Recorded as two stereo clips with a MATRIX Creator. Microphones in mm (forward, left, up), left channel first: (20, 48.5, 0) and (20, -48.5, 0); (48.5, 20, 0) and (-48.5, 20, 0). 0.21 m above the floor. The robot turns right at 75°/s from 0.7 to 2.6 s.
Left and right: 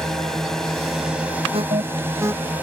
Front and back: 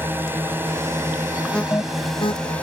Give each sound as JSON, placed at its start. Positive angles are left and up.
{"t": 0.0, "sound": "a drone", "azimuth_deg": 170}
{"t": 1.5, "sound": "an alarm", "azimuth_deg": -85}